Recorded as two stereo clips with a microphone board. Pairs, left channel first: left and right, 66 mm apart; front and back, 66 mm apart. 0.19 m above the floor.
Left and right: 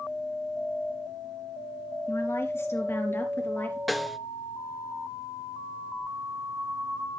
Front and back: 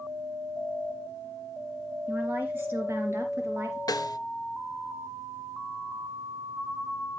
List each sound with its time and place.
2.1 s a woman speaking: 120° left, 3 m; by 3.8 s 140° left, 4 m
3.9 s a snare drum: straight ahead, 0.6 m